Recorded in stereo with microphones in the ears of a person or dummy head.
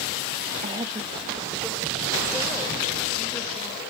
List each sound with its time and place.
0.6 s a woman speaking: 30° right (ahead or behind), 0.5 m; by 3.8 s 10° left (ahead or behind), 2.5 m